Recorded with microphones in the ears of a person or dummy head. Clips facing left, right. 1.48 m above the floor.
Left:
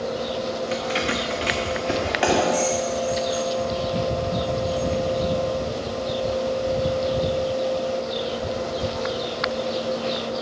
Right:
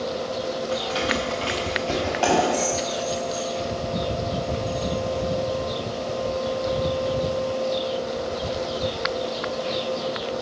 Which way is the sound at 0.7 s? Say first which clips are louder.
Right 1 dB; 35° left (ahead or behind).